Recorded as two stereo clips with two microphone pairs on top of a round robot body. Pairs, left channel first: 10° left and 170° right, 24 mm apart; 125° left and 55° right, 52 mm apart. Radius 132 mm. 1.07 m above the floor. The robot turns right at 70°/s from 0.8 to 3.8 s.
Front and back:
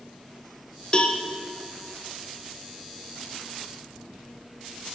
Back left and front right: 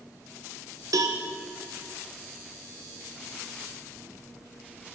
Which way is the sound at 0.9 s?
40° right.